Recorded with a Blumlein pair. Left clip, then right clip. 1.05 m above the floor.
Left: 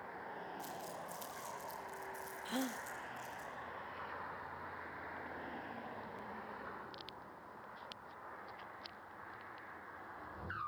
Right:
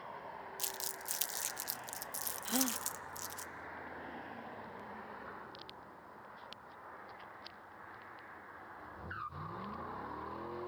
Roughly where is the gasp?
Ahead.